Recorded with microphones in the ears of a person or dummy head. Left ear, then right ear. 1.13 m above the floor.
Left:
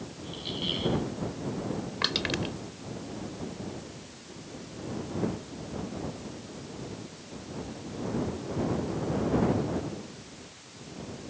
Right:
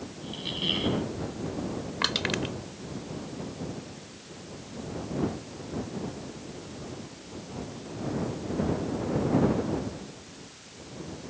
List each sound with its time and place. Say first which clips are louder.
0.2 s a squeak: right 3 dB; 25° right (ahead or behind)
2.0 s crushing: right 1 dB; 10° right (ahead or behind)